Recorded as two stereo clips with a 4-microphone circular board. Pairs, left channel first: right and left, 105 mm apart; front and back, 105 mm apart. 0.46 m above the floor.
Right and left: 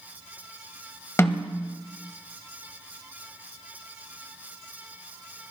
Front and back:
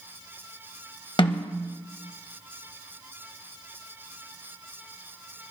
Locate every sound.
1.2 s a snare drum: 30° right, 1.6 m